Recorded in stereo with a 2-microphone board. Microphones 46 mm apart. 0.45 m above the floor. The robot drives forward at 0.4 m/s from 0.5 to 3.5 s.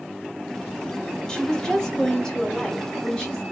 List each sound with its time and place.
1.3 s a woman speaking: 15° left (ahead or behind), 1.3 m; by 3.4 s 10° left (ahead or behind), 2 m